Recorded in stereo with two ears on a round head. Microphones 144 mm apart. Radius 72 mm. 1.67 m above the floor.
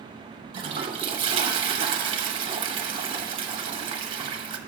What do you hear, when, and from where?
0.5 s a toilet flushing: 35° right (ahead or behind), 0.8 m